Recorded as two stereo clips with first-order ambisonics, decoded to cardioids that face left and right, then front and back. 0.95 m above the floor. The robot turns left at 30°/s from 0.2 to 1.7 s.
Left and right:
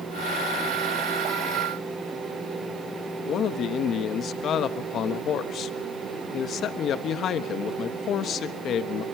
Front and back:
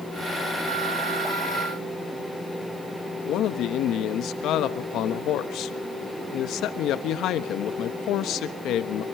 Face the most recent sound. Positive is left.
turn(degrees=40)